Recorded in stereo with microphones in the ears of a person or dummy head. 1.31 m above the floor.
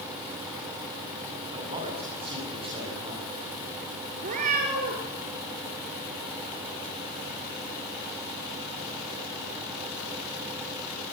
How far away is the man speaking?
About 9 m.